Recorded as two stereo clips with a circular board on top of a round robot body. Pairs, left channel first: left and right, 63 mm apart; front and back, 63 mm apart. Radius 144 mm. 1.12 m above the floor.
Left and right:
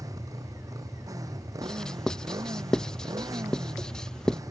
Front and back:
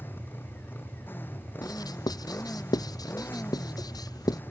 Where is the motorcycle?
60° right.